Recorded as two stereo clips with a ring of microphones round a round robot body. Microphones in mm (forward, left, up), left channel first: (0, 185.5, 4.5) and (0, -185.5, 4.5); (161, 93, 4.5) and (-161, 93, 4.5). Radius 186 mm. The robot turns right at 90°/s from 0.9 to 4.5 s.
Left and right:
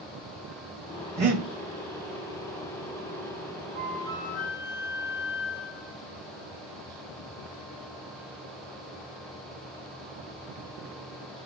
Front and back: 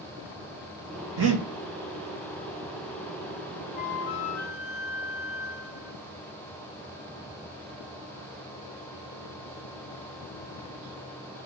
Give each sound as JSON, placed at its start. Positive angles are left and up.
{"t": 1.2, "sound": "breathing", "azimuth_deg": -160, "distance_m": 1.5}
{"t": 3.8, "sound": "a flute", "azimuth_deg": -20, "distance_m": 1.0}